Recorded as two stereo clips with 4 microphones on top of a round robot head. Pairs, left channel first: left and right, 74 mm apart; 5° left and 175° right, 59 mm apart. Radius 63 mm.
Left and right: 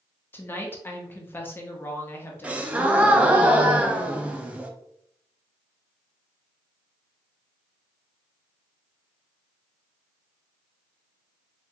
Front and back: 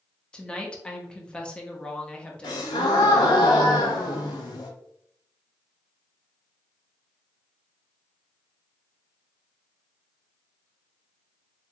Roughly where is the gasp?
Ahead.